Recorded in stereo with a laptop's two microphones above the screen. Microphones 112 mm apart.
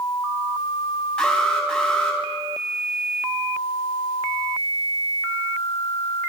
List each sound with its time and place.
1.2 s an alarm: 5° left (ahead or behind), 4 m